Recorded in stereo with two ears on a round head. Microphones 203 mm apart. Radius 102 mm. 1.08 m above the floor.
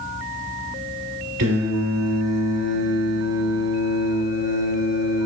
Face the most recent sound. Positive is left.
turn(degrees=-70)  # may be behind; listen again after turning